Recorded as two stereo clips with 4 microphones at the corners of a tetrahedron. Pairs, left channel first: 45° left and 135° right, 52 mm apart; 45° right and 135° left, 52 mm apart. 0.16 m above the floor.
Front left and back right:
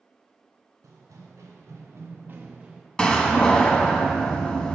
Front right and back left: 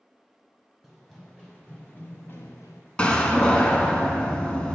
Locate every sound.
0.8 s running footsteps: 130° right, 2.5 m; by 2.9 s 55° right, 1.0 m
3.0 s a door slam: 5° right, 0.7 m